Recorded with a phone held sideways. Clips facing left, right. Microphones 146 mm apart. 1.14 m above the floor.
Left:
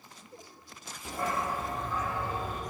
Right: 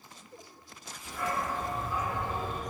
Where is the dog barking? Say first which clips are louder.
Left 1 dB; 45° left (ahead or behind), 0.9 m; by 2.6 s 30° right (ahead or behind), 1.8 m.